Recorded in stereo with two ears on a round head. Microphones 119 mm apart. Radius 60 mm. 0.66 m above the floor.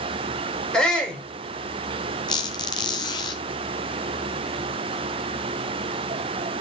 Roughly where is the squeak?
Left.